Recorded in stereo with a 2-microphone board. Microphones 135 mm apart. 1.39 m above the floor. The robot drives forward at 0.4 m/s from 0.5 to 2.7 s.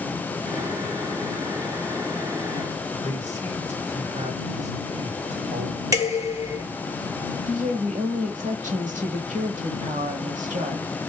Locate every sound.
3.0 s a man speaking: 60° right (ahead or behind), 2.5 m
5.9 s dishes clattering: 25° right (ahead or behind), 1.8 m
7.5 s a woman speaking: 70° right (ahead or behind), 1.6 m